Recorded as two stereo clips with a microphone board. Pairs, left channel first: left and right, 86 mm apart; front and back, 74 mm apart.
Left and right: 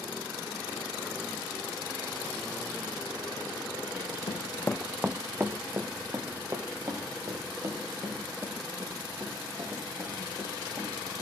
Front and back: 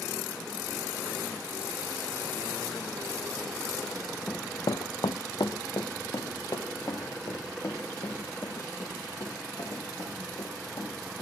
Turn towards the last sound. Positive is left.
turn(degrees=-45)